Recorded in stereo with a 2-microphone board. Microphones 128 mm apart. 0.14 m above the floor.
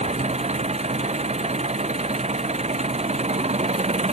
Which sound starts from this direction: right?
An engine running, at 0.0 s.